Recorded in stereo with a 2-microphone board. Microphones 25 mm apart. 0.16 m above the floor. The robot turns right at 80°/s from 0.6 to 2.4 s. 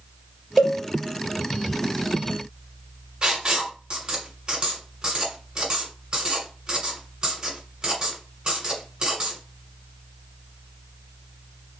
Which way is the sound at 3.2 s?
35° right (ahead or behind).